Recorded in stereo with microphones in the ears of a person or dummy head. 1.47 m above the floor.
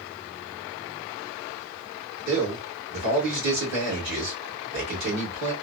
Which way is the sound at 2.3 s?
70° right (ahead or behind).